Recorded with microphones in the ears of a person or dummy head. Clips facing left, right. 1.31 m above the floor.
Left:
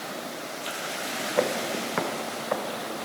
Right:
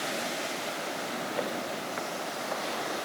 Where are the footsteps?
65° left (ahead or behind).